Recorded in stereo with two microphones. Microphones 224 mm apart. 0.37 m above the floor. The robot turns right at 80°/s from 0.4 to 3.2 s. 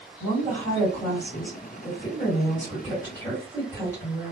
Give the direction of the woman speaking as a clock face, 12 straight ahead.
2 o'clock.